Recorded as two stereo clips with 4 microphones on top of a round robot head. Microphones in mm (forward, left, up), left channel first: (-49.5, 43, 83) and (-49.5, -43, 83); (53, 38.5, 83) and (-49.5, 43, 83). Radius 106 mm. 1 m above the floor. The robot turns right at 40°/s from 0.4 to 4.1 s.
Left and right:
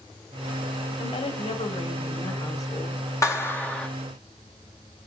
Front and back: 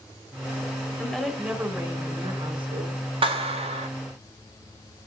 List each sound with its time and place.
1.0 s a woman speaking: 75° left, 3 m; by 3.0 s 155° left, 3 m
3.2 s a clap: 145° left, 4 m; by 3.9 s 170° left, 4 m